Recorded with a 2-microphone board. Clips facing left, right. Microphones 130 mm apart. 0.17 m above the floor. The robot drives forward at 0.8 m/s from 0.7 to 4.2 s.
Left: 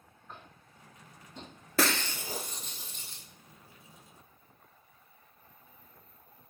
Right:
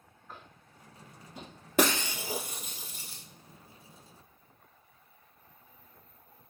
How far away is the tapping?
About 1.3 m.